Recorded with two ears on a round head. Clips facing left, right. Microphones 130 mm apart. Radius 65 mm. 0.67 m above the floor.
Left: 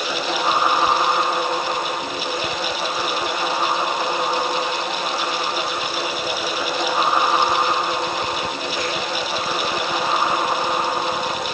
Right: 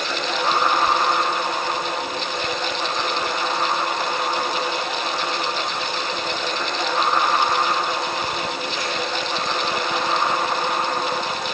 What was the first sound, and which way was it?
Only background noise.